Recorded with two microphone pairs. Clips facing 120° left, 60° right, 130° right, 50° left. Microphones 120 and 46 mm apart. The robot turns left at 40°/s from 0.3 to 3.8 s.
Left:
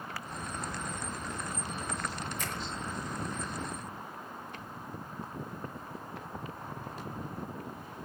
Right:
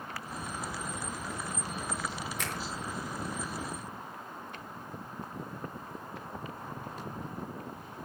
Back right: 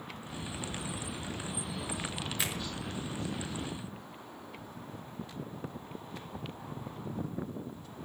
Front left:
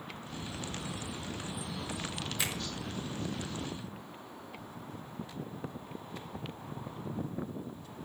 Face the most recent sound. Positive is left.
turn(degrees=-115)